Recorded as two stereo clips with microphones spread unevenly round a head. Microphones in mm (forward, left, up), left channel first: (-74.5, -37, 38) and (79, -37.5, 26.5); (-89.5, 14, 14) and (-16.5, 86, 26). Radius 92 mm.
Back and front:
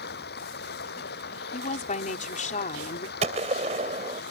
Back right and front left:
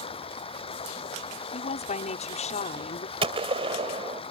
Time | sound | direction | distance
0.0 | running water | 165° right | ?
1.5 | a woman speaking | 140° right | ?
3.2 | a gunshot | 60° left | ?